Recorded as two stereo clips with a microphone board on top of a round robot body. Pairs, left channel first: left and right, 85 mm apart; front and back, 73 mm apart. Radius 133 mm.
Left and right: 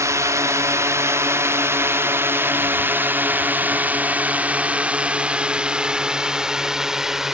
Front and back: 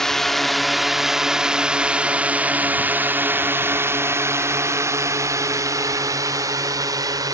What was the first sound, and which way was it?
A drone, 80° right.